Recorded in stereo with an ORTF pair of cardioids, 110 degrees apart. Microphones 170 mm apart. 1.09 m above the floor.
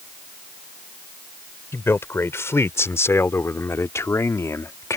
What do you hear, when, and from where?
1.7 s a man speaking: 15° left